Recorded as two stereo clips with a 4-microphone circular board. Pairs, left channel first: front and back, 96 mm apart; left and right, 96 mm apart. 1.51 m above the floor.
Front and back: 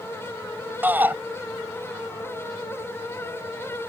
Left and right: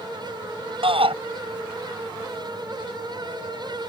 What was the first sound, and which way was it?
A shout, 110° right.